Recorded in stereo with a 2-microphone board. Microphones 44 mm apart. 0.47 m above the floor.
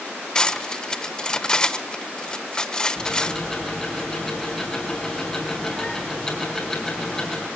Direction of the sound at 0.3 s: 20° left (ahead or behind).